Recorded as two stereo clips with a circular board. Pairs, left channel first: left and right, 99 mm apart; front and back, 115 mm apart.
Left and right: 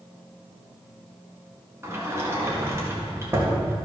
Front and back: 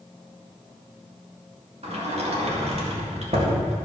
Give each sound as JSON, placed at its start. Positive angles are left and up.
{"t": 1.8, "sound": "a sliding door", "azimuth_deg": -155, "distance_m": 1.8}